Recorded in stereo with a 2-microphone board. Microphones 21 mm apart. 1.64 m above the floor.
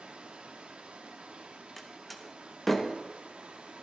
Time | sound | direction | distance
0.0 | running water | 80° right | 0.8 m
1.8 | a door slam | 5° left (ahead or behind) | 0.8 m